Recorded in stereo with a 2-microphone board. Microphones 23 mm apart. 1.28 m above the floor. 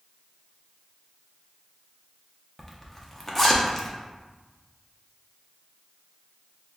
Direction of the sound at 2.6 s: 15° left (ahead or behind).